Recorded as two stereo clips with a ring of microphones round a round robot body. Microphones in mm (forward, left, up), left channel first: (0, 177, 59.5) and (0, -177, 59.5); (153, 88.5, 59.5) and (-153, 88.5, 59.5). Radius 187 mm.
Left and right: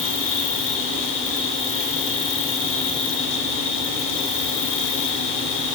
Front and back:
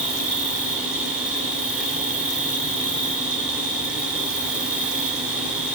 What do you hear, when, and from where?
0.0 s an insect: 90° left, 6.5 m